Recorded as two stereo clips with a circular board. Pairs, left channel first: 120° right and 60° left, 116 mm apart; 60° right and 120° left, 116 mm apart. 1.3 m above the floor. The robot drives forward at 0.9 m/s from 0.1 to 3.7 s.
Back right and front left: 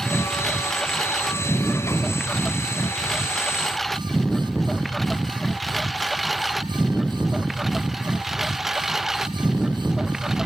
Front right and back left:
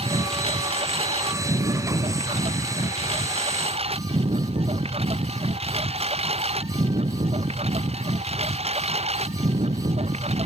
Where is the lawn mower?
155° left; by 10.5 s 145° left.